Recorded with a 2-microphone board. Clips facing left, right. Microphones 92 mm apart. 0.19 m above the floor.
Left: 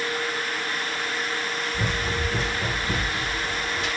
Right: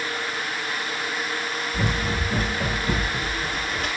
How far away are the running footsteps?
About 7.5 m.